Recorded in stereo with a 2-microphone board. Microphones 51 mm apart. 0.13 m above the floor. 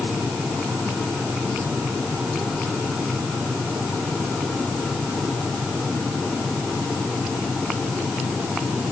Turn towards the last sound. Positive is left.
No sound to turn to.